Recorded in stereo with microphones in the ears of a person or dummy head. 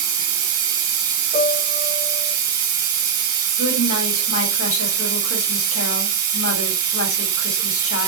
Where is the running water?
20° right (ahead or behind), 1.2 m.